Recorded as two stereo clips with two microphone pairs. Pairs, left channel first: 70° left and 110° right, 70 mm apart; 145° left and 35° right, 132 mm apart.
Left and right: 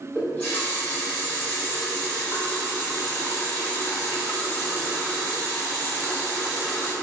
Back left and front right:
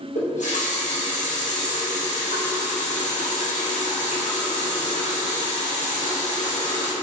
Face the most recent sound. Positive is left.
turn(degrees=140)